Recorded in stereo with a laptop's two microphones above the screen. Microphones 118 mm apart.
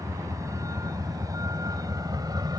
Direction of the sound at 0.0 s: 25° right (ahead or behind).